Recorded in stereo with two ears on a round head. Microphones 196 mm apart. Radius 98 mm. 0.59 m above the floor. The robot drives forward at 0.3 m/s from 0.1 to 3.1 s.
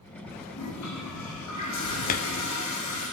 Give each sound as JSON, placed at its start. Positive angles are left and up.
{"t": 0.5, "sound": "a toilet flushing", "side_deg": 80, "distance_m": 9.5}
{"t": 2.1, "sound": "hammering", "side_deg": 40, "distance_m": 1.0}